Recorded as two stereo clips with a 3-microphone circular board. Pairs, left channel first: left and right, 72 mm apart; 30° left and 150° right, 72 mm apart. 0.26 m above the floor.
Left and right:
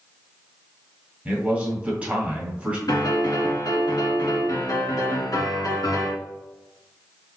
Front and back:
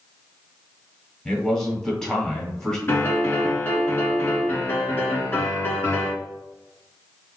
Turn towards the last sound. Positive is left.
turn(degrees=90)